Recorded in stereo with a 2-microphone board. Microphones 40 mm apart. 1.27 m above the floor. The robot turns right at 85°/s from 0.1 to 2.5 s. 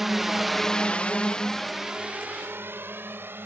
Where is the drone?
5° right (ahead or behind); by 3.5 s 60° right (ahead or behind).